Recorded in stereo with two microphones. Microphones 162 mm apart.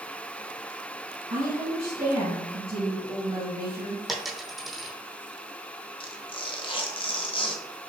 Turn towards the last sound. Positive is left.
turn(degrees=30)  # may be behind; listen again after turning